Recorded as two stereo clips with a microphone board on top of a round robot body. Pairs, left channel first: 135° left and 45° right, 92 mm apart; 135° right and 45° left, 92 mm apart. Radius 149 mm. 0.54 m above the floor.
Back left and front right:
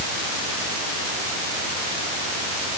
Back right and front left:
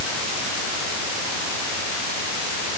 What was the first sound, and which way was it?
Only background noise.